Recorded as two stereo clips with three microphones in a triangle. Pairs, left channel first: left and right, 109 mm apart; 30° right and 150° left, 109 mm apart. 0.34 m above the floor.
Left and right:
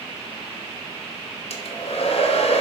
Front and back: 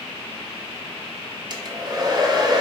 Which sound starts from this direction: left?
A hair dryer, at 1.5 s.